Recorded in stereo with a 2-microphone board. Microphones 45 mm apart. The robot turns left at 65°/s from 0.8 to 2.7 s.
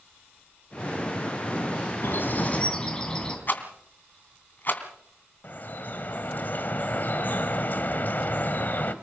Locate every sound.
2.0 s a bird: 65° left, 4.5 m; by 3.4 s 20° left, 4.5 m
3.5 s a rattle: 45° left (ahead or behind), 2.5 m
5.4 s dripping: 45° left (ahead or behind), 1.5 m